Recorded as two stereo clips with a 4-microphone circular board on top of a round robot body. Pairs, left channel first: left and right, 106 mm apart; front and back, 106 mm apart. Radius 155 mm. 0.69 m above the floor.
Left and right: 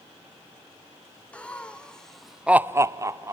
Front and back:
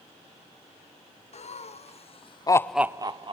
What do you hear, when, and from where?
1.3 s laughter: 10° left, 1.7 m; by 3.3 s 150° right, 0.9 m